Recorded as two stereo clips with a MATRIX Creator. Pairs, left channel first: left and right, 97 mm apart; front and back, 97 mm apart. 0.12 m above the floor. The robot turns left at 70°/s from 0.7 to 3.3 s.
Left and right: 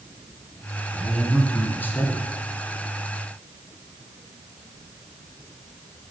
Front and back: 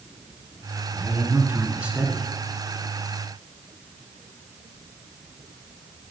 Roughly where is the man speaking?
Behind.